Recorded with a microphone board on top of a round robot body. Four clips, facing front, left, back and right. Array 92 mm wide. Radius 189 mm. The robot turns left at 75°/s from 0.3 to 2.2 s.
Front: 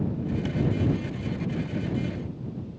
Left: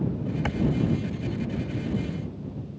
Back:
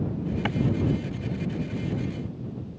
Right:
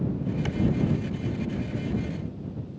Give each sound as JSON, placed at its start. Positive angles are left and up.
{"t": 0.5, "sound": "a clap", "azimuth_deg": 145}